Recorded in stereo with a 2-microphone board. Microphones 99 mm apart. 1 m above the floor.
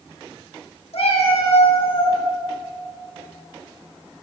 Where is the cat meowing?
70° left (ahead or behind), 2.5 m; by 2.2 s 55° left (ahead or behind), 2.0 m.